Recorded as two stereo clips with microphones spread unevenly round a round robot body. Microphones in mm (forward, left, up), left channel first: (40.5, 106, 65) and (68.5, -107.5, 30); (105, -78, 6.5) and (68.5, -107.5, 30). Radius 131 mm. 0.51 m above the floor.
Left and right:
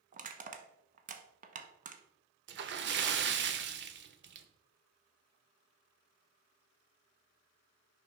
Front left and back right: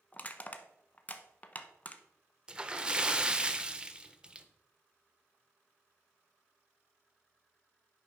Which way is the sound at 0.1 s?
25° right.